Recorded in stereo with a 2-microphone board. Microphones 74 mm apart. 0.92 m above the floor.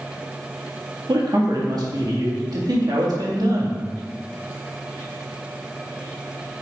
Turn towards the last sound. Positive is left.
turn(degrees=-65)  # may be behind; listen again after turning